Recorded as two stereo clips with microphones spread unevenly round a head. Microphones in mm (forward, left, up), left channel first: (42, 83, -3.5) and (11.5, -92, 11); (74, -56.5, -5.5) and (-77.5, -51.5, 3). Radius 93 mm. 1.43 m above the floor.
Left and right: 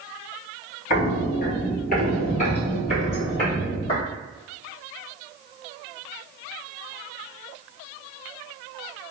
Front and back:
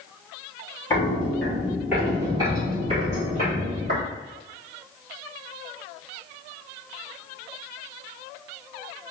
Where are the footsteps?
70° left, 1.8 m; by 4.0 s 145° left, 3 m.